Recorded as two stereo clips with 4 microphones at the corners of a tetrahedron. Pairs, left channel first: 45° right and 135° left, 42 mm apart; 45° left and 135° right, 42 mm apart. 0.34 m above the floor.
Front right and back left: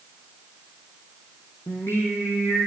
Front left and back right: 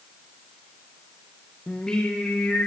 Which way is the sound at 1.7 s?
30° right.